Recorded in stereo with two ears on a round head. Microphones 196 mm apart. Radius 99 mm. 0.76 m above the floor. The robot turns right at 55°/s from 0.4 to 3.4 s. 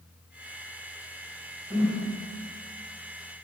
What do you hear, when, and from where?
1.7 s a whoosh: 20° right (ahead or behind), 1.5 m; by 2.0 s centre (ahead or behind), 1.5 m